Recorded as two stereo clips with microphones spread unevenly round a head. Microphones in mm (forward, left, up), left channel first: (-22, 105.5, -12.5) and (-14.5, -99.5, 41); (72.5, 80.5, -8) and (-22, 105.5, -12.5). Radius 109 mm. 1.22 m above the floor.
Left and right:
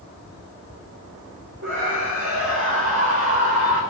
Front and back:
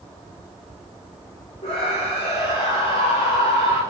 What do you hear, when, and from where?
1.6 s a scream: 55° right, 4.5 m